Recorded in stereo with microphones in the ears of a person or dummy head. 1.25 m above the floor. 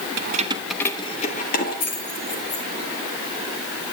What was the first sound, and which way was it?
Keys jangling, 55° right (ahead or behind).